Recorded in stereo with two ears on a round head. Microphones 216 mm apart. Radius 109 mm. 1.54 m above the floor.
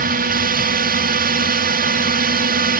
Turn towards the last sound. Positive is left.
turn(degrees=-40)  # may be behind; listen again after turning